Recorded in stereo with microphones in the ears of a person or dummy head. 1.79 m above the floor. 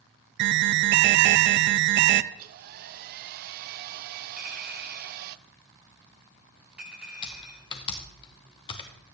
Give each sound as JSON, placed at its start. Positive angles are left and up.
{"t": 0.4, "sound": "an alarm", "side_deg": -65, "distance_m": 0.5}
{"t": 2.3, "sound": "a hair dryer", "side_deg": -55, "distance_m": 0.5}
{"t": 4.4, "sound": "a clink", "side_deg": -5, "distance_m": 9.5}
{"t": 7.2, "sound": "typing on a keyboard", "side_deg": 30, "distance_m": 1.2}